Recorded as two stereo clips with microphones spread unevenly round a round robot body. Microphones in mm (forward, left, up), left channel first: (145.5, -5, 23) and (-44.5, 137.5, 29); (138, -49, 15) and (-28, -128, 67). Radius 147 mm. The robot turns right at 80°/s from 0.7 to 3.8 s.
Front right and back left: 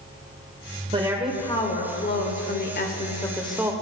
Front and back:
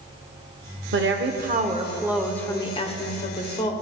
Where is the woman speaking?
155° right, 1.4 m; by 3.7 s 70° left, 1.4 m.